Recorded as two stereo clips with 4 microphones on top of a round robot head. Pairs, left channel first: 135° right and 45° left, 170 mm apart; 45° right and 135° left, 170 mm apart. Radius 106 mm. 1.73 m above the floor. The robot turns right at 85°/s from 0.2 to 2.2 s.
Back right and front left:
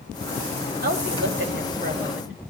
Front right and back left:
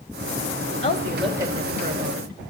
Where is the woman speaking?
10° left, 4.5 m; by 2.4 s 130° left, 4.5 m.